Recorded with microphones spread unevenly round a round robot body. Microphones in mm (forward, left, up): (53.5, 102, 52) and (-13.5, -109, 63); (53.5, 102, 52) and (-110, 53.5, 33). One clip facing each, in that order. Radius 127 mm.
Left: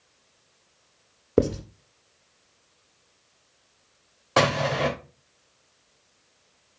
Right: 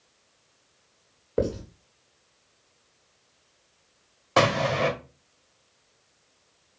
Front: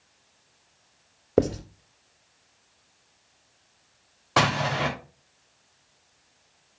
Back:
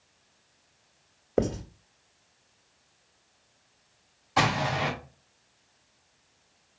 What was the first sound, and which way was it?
Writing, 65° left.